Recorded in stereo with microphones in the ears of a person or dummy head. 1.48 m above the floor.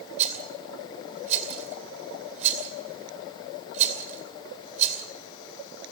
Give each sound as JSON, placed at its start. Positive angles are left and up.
{"t": 0.2, "sound": "a rattle", "side_deg": -40, "distance_m": 2.5}